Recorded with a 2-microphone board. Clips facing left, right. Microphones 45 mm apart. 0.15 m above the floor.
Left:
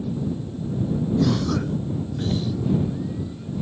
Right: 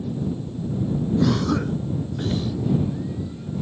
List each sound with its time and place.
1.2 s a cough: 20° right (ahead or behind)